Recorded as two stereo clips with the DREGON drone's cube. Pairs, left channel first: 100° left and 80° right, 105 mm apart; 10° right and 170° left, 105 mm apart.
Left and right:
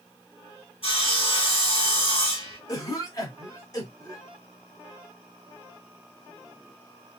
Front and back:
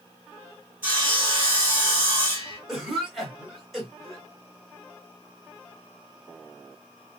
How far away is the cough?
About 1.4 m.